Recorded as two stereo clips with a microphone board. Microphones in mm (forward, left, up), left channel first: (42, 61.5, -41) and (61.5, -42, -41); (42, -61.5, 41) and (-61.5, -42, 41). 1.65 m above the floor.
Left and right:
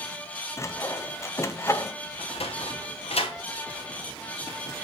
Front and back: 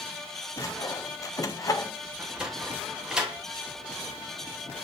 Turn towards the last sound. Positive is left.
turn(degrees=85)